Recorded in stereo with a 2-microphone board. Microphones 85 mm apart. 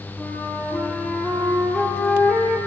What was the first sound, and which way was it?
A flute, centre (ahead or behind).